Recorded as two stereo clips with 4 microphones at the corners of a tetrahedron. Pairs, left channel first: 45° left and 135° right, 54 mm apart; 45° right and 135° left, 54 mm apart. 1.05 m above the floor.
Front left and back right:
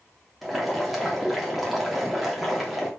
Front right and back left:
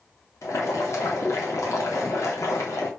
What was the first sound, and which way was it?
Boiling, 45° right.